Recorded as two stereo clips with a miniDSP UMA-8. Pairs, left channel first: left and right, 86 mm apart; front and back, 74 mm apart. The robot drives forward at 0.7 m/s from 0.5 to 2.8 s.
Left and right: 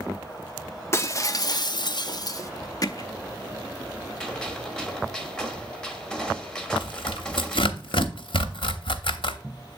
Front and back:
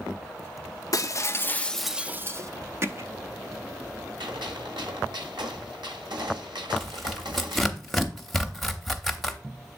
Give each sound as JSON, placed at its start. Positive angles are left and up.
{"t": 0.9, "sound": "breaking glass", "azimuth_deg": 35, "distance_m": 0.8}
{"t": 2.8, "sound": "hammering", "azimuth_deg": 130, "distance_m": 0.6}
{"t": 4.2, "sound": "a gunshot", "azimuth_deg": 170, "distance_m": 1.2}
{"t": 6.8, "sound": "tearing paper", "azimuth_deg": 85, "distance_m": 0.8}